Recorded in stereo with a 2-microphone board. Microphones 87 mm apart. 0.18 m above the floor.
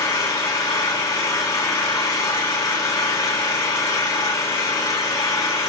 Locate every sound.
0.0 s an engine running: 40° left (ahead or behind), 8 m